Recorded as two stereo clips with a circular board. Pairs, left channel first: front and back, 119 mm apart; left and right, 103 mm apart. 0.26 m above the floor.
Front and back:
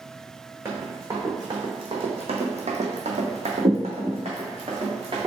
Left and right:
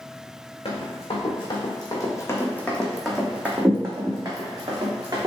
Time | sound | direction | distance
0.7 | running footsteps | 110° left | 1.3 m